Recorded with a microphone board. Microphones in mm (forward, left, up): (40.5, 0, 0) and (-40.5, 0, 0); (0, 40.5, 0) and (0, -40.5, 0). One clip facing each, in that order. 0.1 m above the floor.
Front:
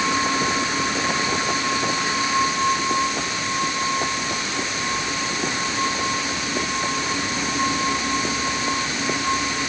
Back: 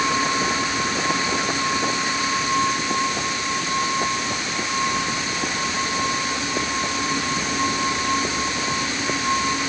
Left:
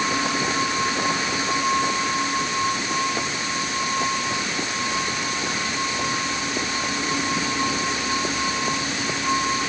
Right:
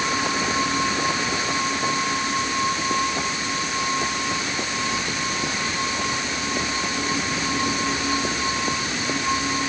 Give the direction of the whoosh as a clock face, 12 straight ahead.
I don't hear a whoosh.